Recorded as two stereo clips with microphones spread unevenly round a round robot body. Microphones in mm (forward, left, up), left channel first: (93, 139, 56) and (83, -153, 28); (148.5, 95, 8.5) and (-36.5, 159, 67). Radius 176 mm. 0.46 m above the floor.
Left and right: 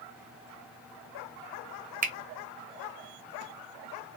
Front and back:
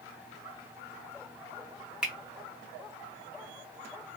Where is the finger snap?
90° right, 0.7 m.